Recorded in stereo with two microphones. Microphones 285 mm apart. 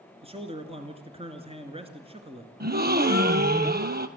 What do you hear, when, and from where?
0.2 s a man speaking: 20° right (ahead or behind), 1.7 m
2.6 s a gasp: 35° right (ahead or behind), 1.1 m